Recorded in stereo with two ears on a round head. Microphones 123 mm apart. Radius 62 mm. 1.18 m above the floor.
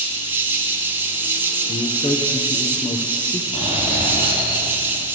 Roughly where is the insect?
Centre.